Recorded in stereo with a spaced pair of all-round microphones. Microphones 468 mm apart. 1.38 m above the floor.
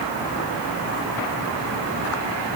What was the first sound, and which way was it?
Only background noise.